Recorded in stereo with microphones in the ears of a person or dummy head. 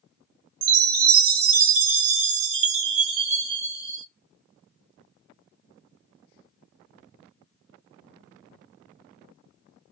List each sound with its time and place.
0.6 s a chime: 70° right (ahead or behind), 1.8 m